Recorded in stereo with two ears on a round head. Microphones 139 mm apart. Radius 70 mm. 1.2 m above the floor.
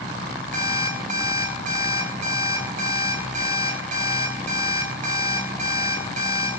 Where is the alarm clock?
55° right (ahead or behind), 3 m.